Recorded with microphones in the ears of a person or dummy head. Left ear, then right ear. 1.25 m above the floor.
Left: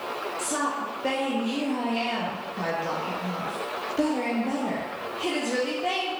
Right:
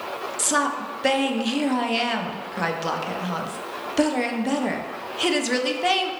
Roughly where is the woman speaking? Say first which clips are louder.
Right 7 dB; right.